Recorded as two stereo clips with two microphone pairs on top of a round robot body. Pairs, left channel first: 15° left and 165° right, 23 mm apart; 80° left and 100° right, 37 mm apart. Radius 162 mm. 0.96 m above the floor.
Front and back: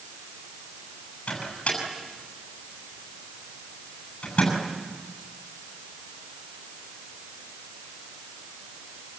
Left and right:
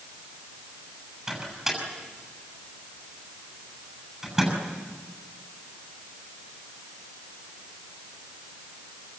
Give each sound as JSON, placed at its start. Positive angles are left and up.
{"t": 1.3, "sound": "a microwave", "azimuth_deg": -25, "distance_m": 7.0}